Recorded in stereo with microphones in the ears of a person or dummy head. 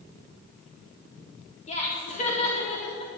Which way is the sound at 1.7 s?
40° left (ahead or behind).